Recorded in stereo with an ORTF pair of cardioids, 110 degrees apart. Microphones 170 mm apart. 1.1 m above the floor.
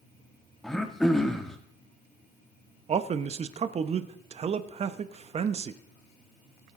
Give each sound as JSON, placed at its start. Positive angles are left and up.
{"t": 0.6, "sound": "throat clearing", "azimuth_deg": 0, "distance_m": 1.4}
{"t": 2.9, "sound": "a man speaking", "azimuth_deg": -40, "distance_m": 1.0}